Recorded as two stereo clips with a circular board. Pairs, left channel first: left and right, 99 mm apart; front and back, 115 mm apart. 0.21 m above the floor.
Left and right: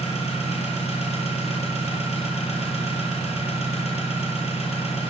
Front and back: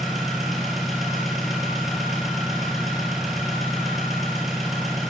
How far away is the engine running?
About 1.7 m.